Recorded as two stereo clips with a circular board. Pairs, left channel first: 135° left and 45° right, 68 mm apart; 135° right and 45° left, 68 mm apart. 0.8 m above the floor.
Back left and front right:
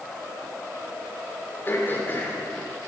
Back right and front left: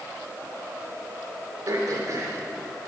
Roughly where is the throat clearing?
Left.